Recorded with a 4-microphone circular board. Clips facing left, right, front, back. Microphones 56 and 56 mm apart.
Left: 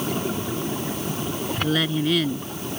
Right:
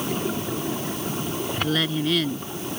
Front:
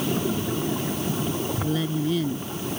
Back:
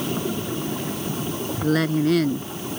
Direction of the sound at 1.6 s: 175° left.